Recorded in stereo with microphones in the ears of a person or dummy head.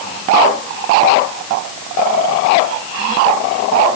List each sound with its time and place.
Only background noise.